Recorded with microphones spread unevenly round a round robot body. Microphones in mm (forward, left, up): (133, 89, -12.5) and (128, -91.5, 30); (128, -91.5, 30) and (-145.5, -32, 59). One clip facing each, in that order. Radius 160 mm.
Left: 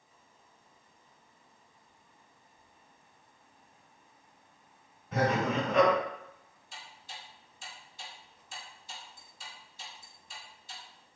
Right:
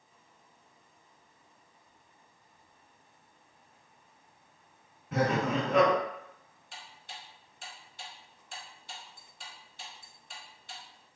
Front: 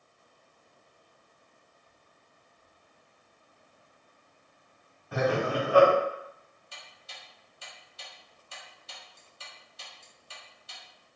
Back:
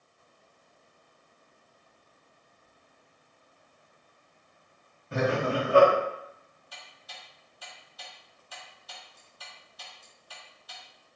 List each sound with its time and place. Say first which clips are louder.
5.1 s laughter: even, even; 130° right, 1.7 m
6.7 s ticking: right 1 dB, back 1 dB; 75° right, 0.8 m